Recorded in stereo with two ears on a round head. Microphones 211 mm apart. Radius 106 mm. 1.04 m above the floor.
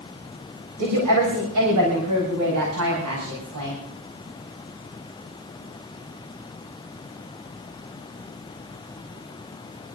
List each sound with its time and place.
0.8 s a woman speaking: 85° right, 4 m